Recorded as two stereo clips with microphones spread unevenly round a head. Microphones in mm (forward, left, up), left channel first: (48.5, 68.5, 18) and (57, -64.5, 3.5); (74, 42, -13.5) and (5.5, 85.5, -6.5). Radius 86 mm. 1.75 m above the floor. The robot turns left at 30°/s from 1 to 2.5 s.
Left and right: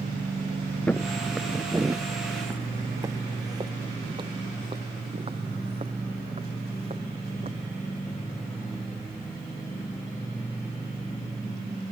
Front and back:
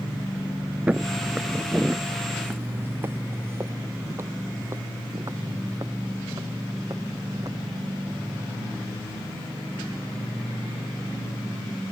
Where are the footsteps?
135° left; by 7.5 s 145° right.